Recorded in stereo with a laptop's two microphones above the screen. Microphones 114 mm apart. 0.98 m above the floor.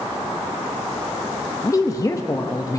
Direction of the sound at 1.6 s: 30° left (ahead or behind).